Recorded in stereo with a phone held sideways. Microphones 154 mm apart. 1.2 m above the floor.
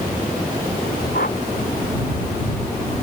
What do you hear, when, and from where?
1.1 s a whoosh: 85° left